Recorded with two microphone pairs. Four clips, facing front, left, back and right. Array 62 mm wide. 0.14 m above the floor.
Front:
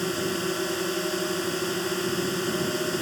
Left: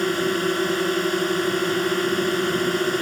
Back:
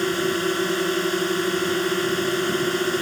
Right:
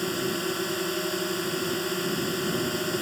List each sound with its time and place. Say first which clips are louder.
0.0 s a drone: left 7 dB, back 5 dB; 130° left